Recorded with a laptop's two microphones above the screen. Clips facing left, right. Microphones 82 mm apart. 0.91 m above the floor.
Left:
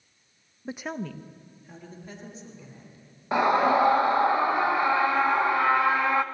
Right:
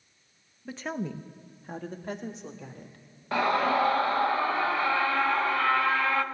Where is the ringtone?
No ringtone in this recording.